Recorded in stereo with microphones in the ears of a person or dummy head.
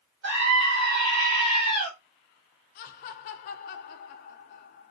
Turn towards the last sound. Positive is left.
turn(degrees=45)  # may be behind; listen again after turning